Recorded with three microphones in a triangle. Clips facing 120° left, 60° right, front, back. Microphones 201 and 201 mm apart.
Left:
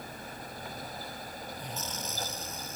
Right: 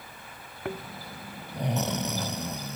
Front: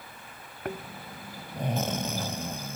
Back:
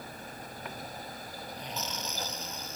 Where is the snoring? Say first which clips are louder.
Right 10 dB, front 8 dB; 35° right.